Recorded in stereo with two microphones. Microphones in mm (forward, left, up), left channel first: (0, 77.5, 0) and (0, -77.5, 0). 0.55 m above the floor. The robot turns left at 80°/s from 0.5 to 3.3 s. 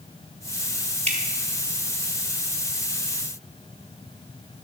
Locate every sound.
1.1 s dripping: 50° right (ahead or behind), 1.6 m; by 1.2 s 55° right (ahead or behind), 1.6 m